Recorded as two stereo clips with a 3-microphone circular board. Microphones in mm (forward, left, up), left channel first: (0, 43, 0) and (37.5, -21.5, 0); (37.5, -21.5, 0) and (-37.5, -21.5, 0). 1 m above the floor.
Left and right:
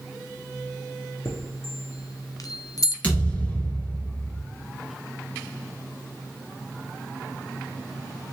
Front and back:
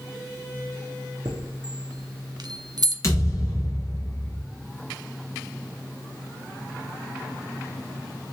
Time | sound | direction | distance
1.2 | a chime | 155° left | 0.8 m
3.0 | a thud | 45° left | 2.5 m